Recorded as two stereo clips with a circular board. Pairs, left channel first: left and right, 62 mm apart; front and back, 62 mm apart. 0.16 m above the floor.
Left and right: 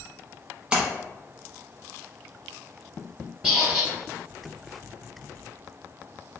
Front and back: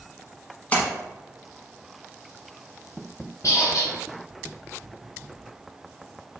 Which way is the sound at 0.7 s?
35° right.